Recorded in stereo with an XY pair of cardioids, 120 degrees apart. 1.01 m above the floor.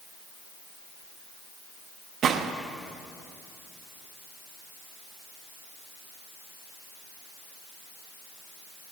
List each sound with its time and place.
2.2 s a gunshot: 55° right, 0.7 m